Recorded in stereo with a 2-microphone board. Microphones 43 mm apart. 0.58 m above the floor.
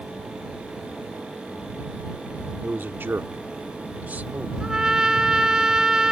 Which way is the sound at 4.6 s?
10° right (ahead or behind).